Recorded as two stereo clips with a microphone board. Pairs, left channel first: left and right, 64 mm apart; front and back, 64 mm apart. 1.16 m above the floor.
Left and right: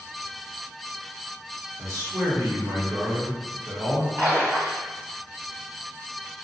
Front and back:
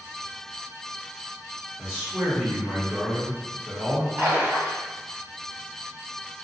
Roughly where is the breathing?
I don't hear breathing.